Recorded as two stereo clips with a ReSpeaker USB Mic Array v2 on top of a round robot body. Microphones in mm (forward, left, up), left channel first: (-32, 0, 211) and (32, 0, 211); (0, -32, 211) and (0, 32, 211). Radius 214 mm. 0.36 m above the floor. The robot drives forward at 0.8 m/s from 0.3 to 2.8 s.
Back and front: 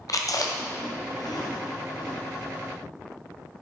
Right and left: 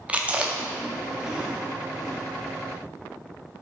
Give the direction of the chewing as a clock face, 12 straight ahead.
7 o'clock.